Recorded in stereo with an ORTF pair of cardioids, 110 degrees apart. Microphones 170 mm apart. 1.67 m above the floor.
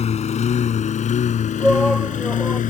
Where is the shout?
Straight ahead.